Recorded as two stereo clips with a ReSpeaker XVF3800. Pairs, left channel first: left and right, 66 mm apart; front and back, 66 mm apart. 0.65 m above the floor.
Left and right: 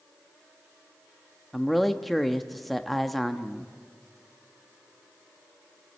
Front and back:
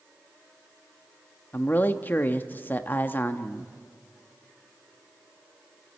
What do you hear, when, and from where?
1.5 s a man speaking: 5° left, 0.8 m